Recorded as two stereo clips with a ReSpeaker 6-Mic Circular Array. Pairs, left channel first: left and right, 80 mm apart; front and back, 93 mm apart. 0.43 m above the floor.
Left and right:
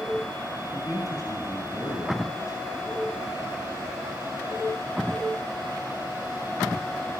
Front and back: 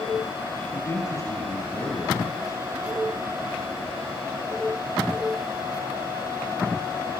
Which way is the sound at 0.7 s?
55° left.